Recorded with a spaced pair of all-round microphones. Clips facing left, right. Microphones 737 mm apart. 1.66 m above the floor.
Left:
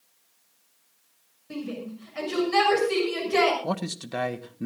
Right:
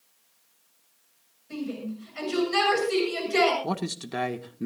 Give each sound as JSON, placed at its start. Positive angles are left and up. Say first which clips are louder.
{"t": 1.5, "sound": "a shout", "louder": "right 1 dB", "side_deg": 75, "distance_m": 7.0}
{"t": 3.6, "sound": "a man speaking", "louder": "even", "side_deg": 5, "distance_m": 1.2}